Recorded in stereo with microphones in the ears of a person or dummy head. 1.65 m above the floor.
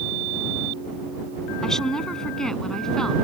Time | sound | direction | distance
1.6 | a woman speaking | centre (ahead or behind) | ?